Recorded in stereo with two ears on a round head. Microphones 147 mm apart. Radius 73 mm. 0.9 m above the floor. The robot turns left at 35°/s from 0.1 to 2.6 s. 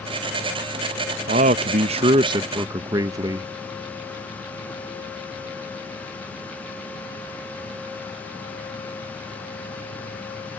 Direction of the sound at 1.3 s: 105° right.